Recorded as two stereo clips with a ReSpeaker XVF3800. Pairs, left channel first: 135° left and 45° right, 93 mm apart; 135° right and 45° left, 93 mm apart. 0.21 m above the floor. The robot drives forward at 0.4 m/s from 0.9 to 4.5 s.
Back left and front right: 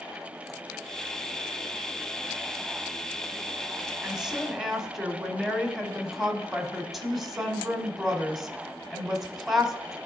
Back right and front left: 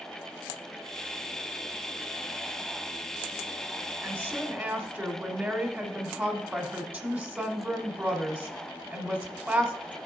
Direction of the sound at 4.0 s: 30° left.